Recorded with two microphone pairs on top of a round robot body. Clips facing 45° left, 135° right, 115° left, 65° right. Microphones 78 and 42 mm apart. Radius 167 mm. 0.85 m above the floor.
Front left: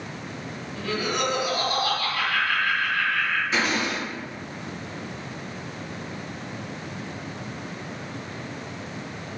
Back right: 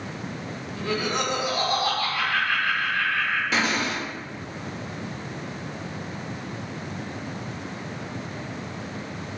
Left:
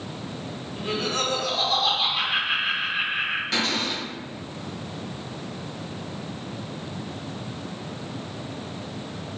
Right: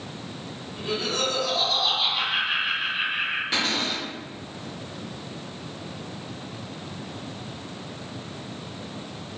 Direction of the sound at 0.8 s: 165° left.